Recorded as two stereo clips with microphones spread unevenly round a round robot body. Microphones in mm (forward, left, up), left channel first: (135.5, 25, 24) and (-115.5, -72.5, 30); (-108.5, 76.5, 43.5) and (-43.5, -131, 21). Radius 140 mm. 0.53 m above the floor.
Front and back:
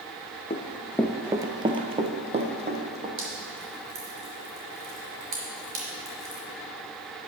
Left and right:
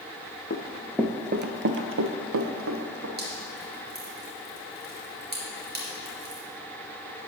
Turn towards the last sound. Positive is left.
turn(degrees=-115)